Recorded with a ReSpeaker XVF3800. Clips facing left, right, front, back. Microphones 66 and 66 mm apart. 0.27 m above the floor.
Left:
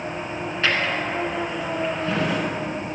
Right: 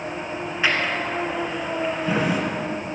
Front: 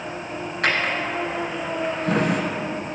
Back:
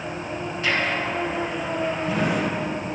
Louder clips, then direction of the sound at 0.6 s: Even, front 1 dB; 15° right.